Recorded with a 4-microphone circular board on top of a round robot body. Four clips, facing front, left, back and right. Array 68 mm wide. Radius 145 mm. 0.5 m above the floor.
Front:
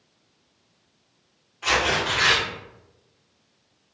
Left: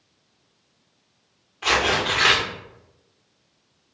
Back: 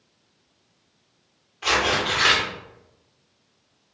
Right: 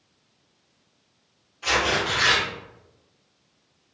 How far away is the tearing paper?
About 1.9 m.